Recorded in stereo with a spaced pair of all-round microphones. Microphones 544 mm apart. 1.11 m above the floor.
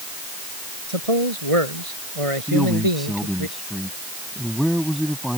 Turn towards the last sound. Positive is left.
turn(degrees=0)  # may be behind; listen again after turning